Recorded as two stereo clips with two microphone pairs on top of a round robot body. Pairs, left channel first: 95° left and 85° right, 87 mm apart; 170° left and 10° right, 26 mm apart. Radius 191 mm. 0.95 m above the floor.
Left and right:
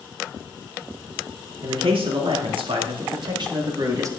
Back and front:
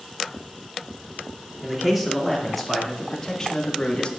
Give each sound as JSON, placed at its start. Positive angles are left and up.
{"t": 1.6, "sound": "a man speaking", "azimuth_deg": -95, "distance_m": 3.0}